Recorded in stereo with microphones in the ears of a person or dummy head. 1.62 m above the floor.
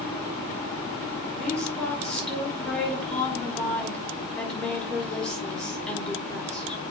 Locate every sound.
1.4 s a woman speaking: 5° left (ahead or behind), 5.5 m